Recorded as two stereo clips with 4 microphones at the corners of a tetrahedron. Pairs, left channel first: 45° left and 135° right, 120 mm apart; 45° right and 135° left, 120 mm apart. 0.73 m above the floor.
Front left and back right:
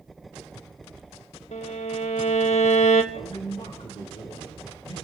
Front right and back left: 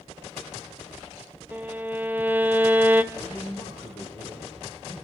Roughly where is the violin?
Ahead left.